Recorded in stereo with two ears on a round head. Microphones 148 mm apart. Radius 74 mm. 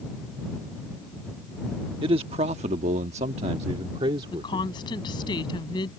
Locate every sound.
2.0 s a man speaking: 35° right (ahead or behind); by 4.7 s 30° right (ahead or behind)
4.3 s a woman speaking: 30° left (ahead or behind)